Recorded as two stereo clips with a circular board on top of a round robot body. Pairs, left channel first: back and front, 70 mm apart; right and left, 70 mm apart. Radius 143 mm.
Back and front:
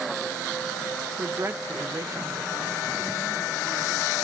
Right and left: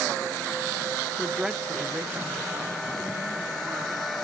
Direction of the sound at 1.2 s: 15° right.